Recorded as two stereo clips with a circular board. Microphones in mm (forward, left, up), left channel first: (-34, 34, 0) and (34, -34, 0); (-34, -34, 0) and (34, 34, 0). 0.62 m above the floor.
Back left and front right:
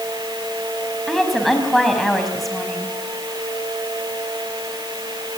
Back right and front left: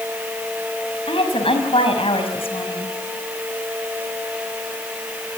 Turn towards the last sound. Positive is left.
turn(degrees=-135)